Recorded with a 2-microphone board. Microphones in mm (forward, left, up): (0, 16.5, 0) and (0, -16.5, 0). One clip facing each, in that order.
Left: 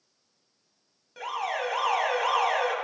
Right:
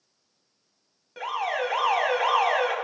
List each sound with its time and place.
1.2 s an alarm: 15° right (ahead or behind), 1.5 m